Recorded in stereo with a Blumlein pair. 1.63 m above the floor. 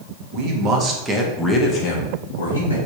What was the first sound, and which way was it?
A man speaking, 40° right.